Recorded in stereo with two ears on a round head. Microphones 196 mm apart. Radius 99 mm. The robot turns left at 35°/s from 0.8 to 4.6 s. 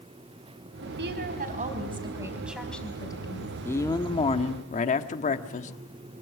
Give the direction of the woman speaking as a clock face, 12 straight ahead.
4 o'clock.